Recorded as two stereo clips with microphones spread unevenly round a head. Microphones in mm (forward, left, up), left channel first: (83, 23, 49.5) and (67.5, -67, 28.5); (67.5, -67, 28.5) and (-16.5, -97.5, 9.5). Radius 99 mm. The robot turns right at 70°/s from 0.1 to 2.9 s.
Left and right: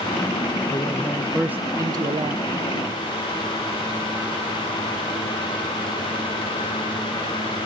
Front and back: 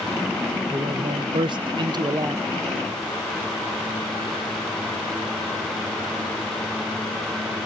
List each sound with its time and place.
0.7 s a man speaking: 135° left, 0.6 m; by 2.5 s 100° right, 0.6 m